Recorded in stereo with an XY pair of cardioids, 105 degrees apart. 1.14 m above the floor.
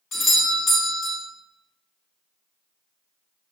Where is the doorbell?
70° left, 1.9 m.